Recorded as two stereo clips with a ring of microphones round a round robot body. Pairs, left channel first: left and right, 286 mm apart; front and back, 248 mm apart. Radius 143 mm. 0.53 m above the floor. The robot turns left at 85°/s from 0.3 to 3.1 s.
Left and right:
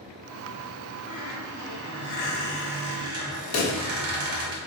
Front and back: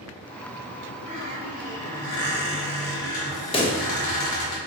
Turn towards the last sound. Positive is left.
turn(degrees=65)